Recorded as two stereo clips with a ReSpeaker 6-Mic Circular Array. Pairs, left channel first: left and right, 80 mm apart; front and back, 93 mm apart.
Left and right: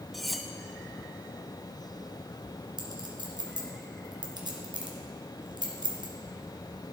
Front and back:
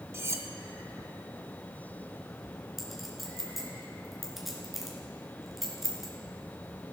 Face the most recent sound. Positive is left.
turn(degrees=-90)